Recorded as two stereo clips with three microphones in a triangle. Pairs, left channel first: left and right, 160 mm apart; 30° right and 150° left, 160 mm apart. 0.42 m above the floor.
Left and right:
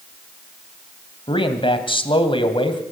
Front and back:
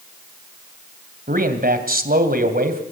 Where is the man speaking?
145° left, 2.5 m.